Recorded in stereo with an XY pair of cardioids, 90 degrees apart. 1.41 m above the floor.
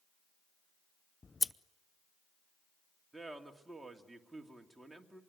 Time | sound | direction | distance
1.2 | scissors | 25° left | 0.6 m
3.1 | a man speaking | 15° right | 2.5 m